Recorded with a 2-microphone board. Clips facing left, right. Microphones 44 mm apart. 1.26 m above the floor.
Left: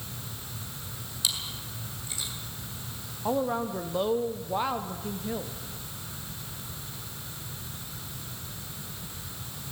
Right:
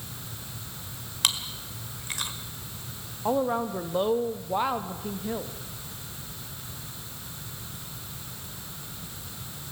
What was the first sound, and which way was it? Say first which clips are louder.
Chewing: right 5 dB; 60° right (ahead or behind).